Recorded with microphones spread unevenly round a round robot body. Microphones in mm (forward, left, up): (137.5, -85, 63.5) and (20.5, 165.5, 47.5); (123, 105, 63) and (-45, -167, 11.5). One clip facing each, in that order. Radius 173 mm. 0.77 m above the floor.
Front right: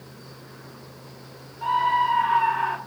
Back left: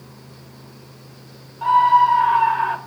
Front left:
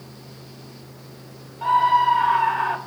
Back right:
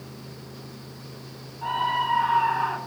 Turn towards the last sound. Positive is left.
turn(degrees=90)